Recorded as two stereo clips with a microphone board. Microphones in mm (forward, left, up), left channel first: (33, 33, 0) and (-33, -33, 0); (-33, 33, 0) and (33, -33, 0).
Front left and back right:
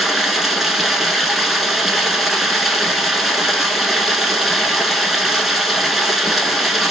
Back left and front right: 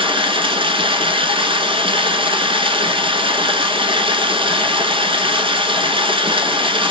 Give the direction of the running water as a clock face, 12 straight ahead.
2 o'clock.